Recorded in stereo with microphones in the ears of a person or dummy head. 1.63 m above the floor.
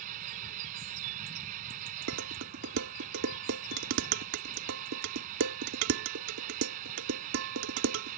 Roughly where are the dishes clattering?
Right.